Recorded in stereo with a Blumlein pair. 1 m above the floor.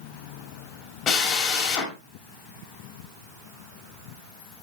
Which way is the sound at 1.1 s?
25° left.